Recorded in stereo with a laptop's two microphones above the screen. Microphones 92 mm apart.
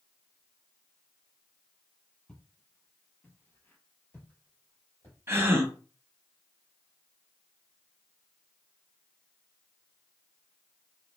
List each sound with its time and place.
2.3 s footsteps: 10° left (ahead or behind), 1.1 m; by 5.2 s 25° left (ahead or behind), 1.5 m
5.3 s a gasp: 25° right (ahead or behind), 0.6 m